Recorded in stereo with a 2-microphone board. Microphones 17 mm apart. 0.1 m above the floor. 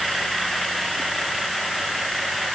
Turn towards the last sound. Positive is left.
No sound to turn to.